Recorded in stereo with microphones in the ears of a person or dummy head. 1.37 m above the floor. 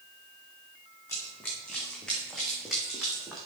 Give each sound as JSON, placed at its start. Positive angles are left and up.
{"t": 1.1, "sound": "running footsteps", "side_deg": 15, "distance_m": 3.5}